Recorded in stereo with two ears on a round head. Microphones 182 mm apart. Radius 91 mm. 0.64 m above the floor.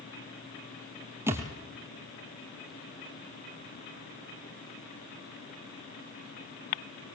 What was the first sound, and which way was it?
A thud, 10° right (ahead or behind).